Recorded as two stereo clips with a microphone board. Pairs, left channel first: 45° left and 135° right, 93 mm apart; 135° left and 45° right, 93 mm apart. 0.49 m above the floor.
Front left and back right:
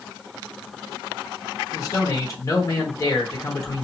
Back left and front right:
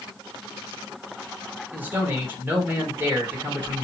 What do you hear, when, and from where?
1.7 s a man speaking: 15° left, 1.4 m